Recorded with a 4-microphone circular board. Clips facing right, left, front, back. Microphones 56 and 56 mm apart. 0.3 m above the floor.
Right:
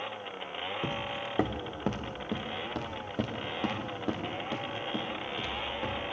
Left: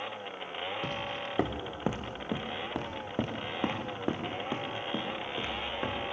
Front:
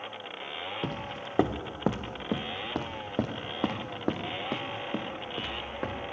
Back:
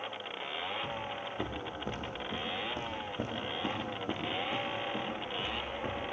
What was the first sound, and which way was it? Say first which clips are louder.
Footsteps: right 1 dB, front 2 dB; 20° right.